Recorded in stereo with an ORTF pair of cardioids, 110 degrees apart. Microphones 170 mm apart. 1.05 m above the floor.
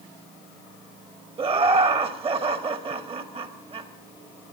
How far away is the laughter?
About 1.8 m.